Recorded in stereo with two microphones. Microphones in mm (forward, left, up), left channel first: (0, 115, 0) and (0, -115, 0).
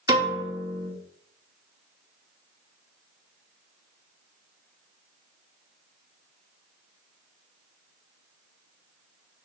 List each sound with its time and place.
0.1 s a piano: 20° right (ahead or behind), 1.9 m